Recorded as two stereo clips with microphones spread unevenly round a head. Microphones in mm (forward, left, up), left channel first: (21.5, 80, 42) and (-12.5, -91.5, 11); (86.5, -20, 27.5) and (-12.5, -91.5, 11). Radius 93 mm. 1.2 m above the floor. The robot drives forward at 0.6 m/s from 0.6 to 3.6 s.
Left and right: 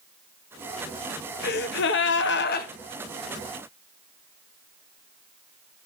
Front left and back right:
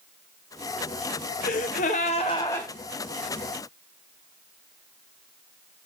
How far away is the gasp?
About 0.8 m.